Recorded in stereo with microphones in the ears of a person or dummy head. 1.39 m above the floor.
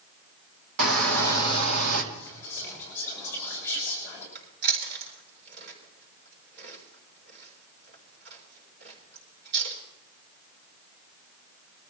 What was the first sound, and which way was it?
A shout, 65° right (ahead or behind).